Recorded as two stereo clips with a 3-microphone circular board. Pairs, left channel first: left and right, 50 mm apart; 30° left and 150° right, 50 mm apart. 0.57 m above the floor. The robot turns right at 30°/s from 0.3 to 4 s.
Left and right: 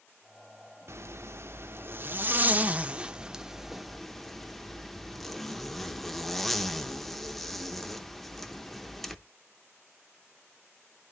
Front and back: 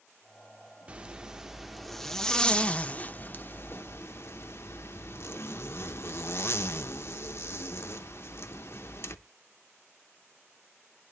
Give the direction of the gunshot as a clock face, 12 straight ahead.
I don't hear a gunshot.